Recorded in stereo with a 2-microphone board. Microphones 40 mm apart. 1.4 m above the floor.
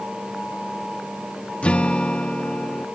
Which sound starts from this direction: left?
A guitar, at 1.6 s.